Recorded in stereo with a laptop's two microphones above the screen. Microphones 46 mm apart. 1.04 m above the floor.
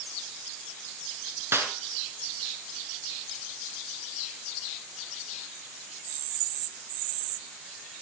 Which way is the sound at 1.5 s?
70° right (ahead or behind).